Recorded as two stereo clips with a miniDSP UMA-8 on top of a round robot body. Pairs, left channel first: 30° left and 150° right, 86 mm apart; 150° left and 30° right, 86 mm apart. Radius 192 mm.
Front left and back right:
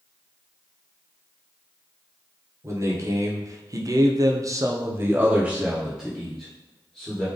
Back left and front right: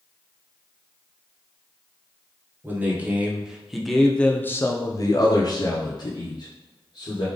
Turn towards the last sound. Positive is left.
turn(degrees=115)